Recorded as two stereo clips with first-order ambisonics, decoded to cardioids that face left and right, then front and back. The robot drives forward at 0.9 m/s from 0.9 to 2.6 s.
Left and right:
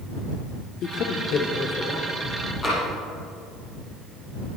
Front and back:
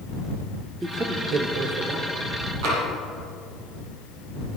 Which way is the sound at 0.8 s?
110° left.